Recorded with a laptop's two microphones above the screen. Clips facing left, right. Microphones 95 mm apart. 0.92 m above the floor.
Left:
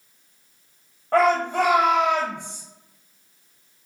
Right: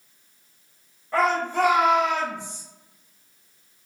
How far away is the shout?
About 0.6 m.